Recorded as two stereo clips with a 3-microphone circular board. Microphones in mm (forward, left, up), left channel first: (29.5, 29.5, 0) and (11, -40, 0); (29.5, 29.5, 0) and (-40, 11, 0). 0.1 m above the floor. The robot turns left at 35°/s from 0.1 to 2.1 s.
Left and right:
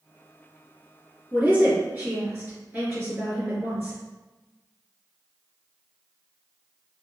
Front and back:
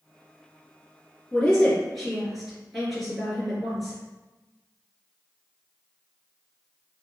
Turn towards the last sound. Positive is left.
turn(degrees=-75)